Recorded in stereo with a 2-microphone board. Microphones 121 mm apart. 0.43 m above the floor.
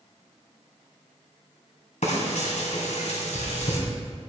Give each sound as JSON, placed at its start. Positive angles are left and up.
{"t": 2.0, "sound": "frying", "side_deg": 70, "distance_m": 2.5}